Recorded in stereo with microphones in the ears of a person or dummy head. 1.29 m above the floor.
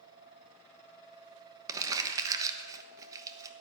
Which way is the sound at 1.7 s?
20° right (ahead or behind).